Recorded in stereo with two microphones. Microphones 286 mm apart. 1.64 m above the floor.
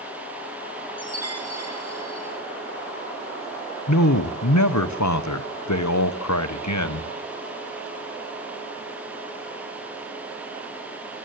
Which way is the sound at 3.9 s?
75° left (ahead or behind).